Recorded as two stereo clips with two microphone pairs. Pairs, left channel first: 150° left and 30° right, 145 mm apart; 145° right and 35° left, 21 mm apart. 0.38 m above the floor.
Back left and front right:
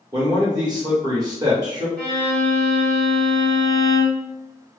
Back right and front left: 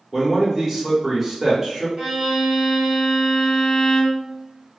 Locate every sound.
0.1 s a man speaking: 35° right, 1.0 m
2.0 s a violin: 70° left, 1.7 m